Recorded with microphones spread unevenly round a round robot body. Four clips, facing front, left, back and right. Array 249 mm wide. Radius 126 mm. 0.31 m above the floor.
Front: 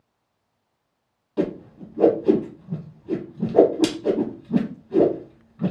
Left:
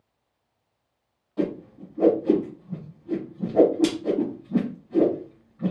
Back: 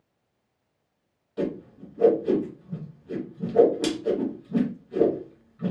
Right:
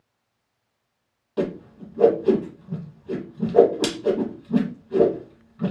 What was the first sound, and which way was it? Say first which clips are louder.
A whoosh: right 1 dB, front 4 dB; 45° right.